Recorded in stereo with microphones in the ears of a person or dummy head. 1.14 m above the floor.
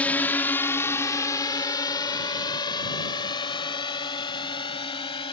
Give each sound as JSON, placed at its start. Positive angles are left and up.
{"t": 0.0, "sound": "a drone", "side_deg": 10}